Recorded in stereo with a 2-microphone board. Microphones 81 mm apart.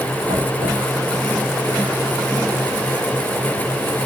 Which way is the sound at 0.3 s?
70° right (ahead or behind).